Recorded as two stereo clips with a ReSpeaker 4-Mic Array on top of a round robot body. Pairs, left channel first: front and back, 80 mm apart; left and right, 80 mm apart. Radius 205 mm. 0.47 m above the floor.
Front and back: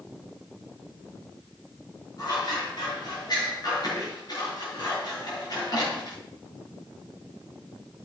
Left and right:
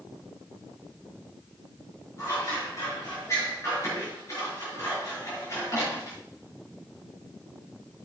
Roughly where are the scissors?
Ahead left.